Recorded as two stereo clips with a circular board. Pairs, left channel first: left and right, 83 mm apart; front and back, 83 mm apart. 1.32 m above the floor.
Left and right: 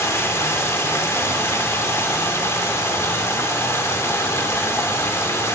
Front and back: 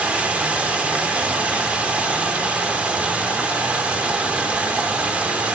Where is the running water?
115° left, 1.0 m.